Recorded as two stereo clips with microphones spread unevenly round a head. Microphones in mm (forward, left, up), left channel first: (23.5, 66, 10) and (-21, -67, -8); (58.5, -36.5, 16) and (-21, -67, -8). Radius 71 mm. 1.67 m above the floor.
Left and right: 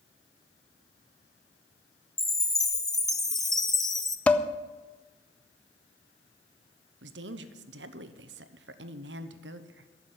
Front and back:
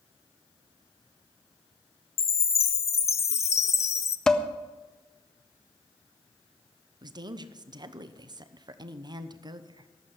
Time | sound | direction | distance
2.2 | a chime | 10° right | 0.8 m
4.3 | dishes clattering | 25° left | 0.6 m
7.0 | a woman speaking | 120° right | 0.8 m